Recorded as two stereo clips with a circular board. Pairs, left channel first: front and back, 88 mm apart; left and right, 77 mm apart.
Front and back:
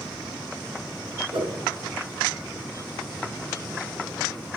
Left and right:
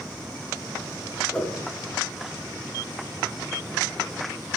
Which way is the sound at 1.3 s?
165° left.